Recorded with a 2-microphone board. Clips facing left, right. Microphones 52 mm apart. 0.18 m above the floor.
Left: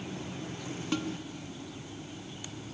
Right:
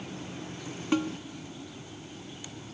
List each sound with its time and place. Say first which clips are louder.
0.9 s a snare drum: right 6 dB; 20° right (ahead or behind), 1.0 m